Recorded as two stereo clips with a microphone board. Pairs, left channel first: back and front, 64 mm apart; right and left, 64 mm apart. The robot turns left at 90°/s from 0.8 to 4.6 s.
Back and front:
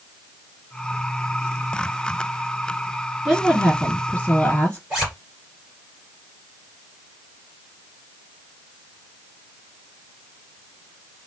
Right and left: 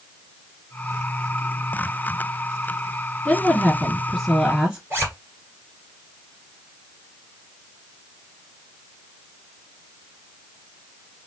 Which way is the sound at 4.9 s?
60° left.